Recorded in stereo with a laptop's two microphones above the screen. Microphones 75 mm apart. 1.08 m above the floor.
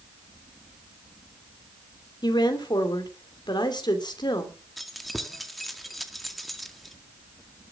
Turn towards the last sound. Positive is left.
turn(degrees=0)  # may be behind; listen again after turning